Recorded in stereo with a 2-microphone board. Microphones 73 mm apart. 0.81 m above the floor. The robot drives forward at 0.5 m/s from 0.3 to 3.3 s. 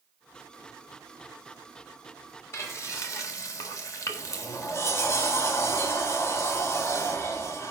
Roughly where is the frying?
Left.